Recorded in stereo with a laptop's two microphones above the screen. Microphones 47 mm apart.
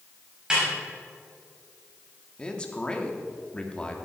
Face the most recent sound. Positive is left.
turn(degrees=20)  # may be behind; listen again after turning